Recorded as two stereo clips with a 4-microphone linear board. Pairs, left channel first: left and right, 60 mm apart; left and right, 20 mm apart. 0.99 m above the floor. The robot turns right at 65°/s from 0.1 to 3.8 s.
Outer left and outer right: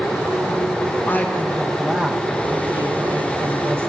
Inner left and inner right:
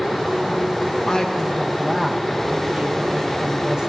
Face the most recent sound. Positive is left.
turn(degrees=-50)